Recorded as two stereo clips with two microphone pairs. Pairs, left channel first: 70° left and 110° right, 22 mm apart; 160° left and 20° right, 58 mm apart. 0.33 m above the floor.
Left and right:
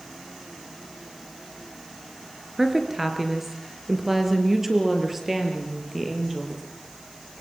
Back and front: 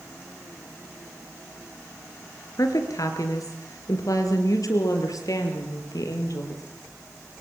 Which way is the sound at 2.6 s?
175° left.